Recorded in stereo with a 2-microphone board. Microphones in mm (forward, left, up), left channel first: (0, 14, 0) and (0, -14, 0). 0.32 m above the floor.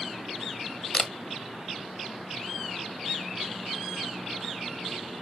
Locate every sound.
0.9 s a camera shutter: 30° left (ahead or behind), 1.2 m